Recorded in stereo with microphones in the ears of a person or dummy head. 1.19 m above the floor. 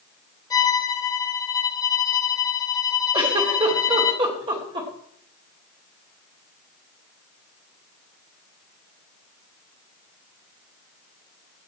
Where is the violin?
20° left (ahead or behind), 5 m.